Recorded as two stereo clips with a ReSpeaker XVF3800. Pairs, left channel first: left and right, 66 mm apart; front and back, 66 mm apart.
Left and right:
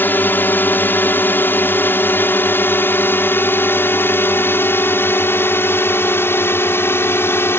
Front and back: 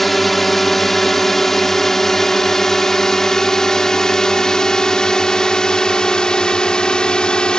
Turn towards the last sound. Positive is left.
turn(degrees=70)